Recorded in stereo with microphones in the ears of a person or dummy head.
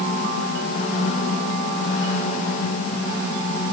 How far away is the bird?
No bird in this recording.